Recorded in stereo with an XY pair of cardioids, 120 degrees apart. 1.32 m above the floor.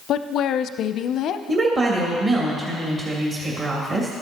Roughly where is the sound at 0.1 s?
Ahead left.